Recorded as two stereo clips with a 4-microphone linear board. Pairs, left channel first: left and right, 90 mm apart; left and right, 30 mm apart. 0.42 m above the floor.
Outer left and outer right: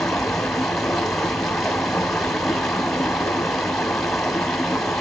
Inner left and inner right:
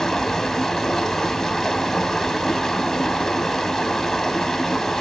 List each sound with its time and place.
0.0 s running water: 5° left (ahead or behind), 1.4 m